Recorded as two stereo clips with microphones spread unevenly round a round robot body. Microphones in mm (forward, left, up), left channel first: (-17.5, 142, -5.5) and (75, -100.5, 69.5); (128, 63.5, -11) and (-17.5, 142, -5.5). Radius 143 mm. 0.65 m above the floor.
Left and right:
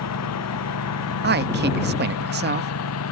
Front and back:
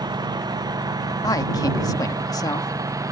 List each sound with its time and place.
0.0 s a lawn mower: 85° left; by 3.1 s 80° left
1.2 s a man speaking: 40° right